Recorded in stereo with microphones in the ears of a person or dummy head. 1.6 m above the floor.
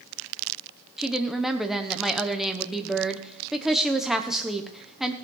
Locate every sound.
1.0 s a woman speaking: 5° right (ahead or behind), 1.1 m